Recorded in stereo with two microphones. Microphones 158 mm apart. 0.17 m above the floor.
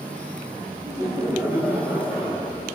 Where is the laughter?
20° right (ahead or behind), 4.5 m; by 2.6 s centre (ahead or behind), 5 m.